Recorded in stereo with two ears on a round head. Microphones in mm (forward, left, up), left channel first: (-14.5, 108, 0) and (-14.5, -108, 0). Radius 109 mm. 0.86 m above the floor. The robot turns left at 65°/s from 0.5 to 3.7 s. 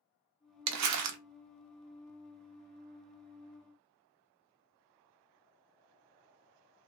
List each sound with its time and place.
0.7 s crumpling: 75° right, 0.6 m; by 1.2 s 110° right, 0.6 m